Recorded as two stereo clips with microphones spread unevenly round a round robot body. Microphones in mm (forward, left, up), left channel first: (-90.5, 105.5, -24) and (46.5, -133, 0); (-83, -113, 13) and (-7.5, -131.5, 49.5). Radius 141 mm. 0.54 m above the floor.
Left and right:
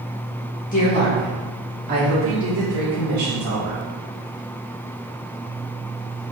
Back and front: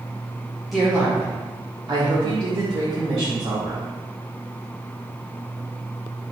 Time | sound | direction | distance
0.7 | a woman speaking | 120° left | 1.0 m